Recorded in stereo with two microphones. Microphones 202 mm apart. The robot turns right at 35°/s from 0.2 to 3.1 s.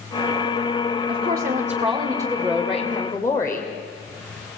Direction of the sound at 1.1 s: 55° right.